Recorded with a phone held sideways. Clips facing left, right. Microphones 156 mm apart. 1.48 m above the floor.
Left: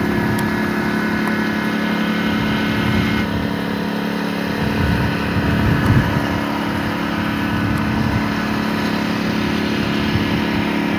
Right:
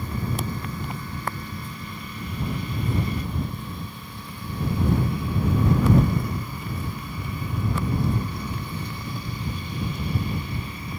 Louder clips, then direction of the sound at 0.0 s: Left 12 dB; 80° left.